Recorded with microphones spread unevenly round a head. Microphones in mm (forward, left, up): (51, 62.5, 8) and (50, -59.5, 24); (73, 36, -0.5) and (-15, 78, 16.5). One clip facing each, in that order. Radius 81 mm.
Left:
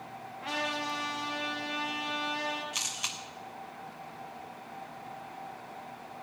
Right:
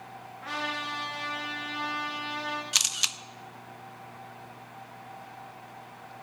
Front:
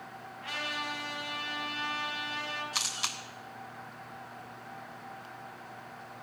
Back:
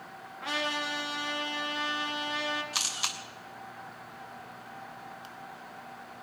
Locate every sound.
0.4 s a trumpet: 170° left, 3 m
2.7 s a camera shutter: 115° right, 0.5 m